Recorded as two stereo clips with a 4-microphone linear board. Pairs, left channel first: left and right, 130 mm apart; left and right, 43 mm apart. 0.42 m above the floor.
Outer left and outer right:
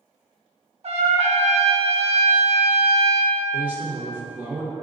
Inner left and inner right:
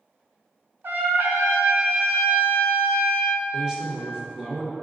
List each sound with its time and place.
0.8 s a trumpet: 55° right (ahead or behind), 0.6 m
3.5 s a man speaking: 15° right (ahead or behind), 0.8 m